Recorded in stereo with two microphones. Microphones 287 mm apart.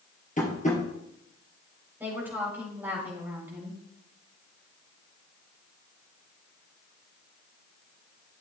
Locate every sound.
0.4 s tapping: 30° left (ahead or behind), 2.5 m
2.0 s a woman speaking: 10° right (ahead or behind), 4 m